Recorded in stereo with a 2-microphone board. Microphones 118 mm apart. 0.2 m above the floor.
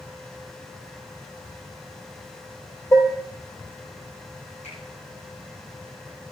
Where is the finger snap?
75° left (ahead or behind), 9.5 m.